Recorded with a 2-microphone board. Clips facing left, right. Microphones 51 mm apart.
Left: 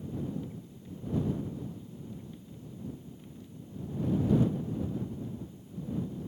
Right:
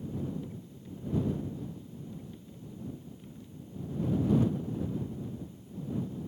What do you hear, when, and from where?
Only background noise.